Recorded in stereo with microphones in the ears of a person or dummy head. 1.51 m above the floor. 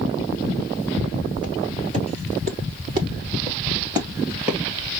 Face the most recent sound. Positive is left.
turn(degrees=-10)  # may be behind; listen again after turning